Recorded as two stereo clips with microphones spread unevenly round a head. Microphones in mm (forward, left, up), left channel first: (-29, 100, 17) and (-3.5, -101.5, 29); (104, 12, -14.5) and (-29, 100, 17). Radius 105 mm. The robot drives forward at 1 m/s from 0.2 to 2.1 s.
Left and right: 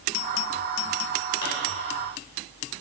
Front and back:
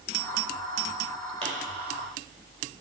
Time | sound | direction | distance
1.4 | a pop | 95° left | 4 m